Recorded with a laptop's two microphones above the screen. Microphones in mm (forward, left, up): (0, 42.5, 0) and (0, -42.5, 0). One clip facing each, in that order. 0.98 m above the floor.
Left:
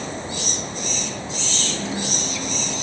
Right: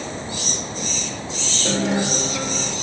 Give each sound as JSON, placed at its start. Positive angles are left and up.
{"t": 1.6, "sound": "a guitar", "side_deg": -75, "distance_m": 1.8}